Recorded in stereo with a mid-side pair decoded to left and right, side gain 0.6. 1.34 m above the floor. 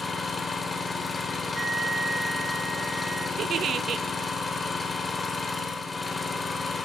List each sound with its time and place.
0.0 s an engine running: 20° left, 2.5 m
1.6 s a flute: 20° right, 1.5 m
3.4 s a giggle: 45° right, 0.6 m